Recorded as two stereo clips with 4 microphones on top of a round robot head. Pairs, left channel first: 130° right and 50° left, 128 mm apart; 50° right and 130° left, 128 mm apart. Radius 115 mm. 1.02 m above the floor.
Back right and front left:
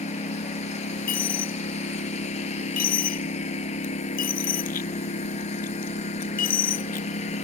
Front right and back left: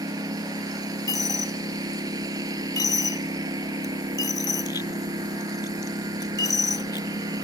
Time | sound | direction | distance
0.0 | a lawn mower | 170° right | ?
1.1 | a dropped coin | 115° right | ?